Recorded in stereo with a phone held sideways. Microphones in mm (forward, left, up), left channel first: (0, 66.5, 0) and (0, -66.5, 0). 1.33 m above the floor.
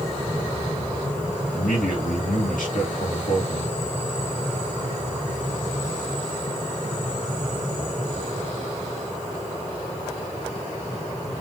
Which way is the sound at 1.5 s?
90° left.